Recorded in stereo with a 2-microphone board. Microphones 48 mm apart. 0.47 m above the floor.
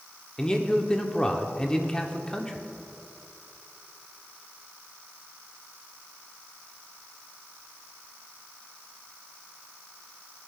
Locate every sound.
0.4 s a man speaking: 20° left (ahead or behind), 1.1 m